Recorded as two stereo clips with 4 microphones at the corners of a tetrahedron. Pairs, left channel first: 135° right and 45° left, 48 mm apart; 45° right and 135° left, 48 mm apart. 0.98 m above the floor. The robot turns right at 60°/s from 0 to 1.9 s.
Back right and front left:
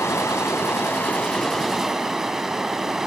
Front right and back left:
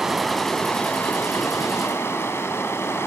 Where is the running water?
150° right, 1.9 m; by 3.1 s 35° right, 1.9 m.